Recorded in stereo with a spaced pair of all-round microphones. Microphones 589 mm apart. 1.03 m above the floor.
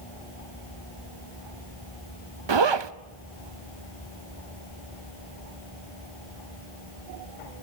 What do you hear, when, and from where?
2.5 s a zipper: 50° right (ahead or behind), 0.6 m